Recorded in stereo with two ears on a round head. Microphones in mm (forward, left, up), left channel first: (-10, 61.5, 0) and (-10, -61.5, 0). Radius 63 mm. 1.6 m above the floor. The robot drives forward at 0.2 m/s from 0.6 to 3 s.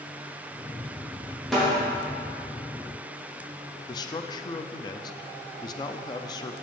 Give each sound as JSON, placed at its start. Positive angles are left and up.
{"t": 1.5, "sound": "a snare drum", "side_deg": 0, "distance_m": 3.0}
{"t": 3.9, "sound": "a man speaking", "side_deg": 30, "distance_m": 0.5}